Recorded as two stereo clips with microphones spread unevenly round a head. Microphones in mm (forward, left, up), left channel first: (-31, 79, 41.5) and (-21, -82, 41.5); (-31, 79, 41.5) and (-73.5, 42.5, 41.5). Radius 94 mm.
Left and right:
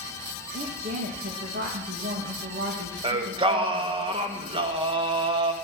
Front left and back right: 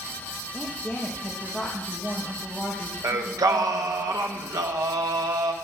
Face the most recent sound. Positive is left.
turn(degrees=-145)